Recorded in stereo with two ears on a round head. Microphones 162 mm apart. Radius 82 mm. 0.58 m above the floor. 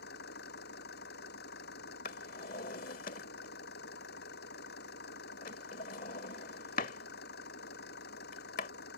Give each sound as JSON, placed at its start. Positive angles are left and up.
{"t": 0.0, "sound": "an engine running", "side_deg": 65}
{"t": 2.0, "sound": "a drawer", "side_deg": 45}